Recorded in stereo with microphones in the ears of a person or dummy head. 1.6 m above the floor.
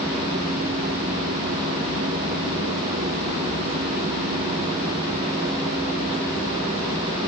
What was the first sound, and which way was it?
Only background noise.